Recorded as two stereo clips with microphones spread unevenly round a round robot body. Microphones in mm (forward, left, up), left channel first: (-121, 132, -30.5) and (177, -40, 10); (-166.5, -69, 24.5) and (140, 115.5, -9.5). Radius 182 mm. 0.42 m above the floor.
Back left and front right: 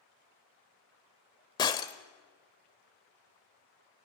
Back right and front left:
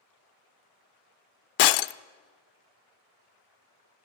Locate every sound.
1.6 s breaking glass: 135° right, 0.5 m